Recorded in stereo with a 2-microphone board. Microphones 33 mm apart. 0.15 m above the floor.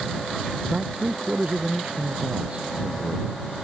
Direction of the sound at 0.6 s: 35° right (ahead or behind).